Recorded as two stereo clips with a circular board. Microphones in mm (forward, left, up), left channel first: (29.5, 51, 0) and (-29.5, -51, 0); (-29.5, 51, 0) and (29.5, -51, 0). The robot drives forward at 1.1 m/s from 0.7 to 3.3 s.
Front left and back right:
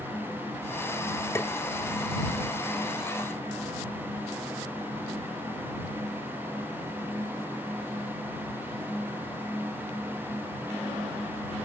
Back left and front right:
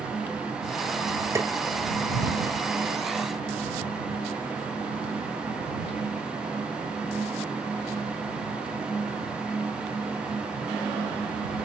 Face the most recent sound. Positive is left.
turn(degrees=180)